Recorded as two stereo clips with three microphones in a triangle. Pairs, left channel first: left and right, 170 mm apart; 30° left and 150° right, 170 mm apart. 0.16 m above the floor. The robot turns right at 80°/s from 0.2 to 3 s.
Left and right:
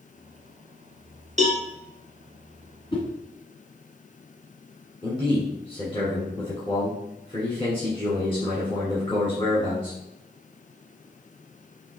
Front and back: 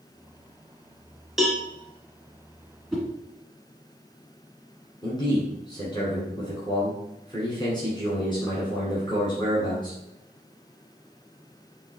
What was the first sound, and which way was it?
A cowbell, 65° right.